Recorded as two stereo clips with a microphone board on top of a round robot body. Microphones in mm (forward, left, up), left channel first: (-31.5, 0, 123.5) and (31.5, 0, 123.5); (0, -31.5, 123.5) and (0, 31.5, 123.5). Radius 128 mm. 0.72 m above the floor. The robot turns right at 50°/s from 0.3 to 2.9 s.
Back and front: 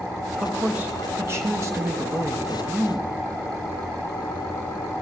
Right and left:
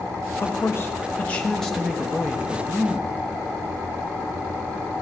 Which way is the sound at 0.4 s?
70° right.